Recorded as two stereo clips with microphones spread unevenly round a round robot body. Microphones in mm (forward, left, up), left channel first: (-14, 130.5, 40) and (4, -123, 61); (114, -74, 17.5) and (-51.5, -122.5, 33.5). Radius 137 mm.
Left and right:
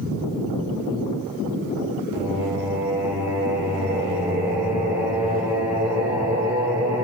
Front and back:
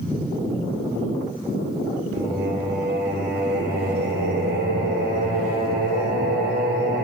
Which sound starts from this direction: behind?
Singing, at 2.1 s.